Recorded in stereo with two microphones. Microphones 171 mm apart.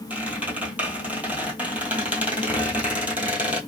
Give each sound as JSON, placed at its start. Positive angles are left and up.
{"t": 0.1, "sound": "a squeak", "side_deg": -10, "distance_m": 1.2}